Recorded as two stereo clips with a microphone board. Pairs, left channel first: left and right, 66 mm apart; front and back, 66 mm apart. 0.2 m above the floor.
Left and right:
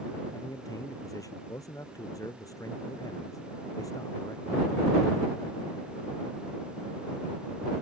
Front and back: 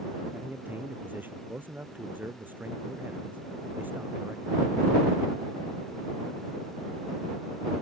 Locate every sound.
0.3 s a man speaking: 120° left